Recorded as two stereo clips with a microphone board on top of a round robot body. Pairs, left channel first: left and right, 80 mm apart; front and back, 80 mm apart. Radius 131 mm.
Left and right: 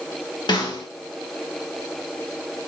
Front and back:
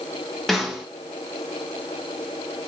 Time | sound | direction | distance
0.5 | a snare drum | 85° left | 2.5 m